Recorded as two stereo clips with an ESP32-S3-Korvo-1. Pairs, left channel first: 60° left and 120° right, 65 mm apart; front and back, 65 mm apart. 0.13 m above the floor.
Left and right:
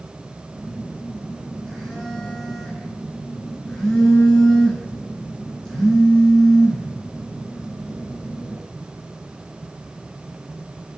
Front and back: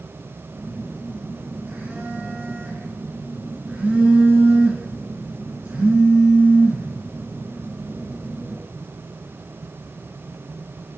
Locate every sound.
0.5 s a phone buzzing: 120° left, 1.4 m